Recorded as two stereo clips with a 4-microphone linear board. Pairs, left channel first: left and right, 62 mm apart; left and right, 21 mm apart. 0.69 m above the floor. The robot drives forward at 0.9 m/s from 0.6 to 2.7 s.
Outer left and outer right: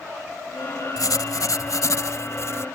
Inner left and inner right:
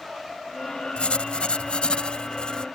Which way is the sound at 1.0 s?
80° left.